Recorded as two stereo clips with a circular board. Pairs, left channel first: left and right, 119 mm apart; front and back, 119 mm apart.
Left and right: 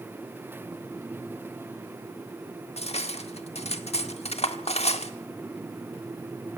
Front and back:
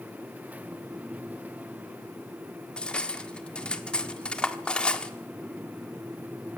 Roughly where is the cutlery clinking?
Left.